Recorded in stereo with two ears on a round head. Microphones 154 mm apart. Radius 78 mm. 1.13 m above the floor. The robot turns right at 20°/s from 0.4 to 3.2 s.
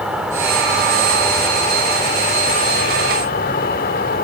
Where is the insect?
5° right, 2 m; by 4.2 s 50° left, 2 m.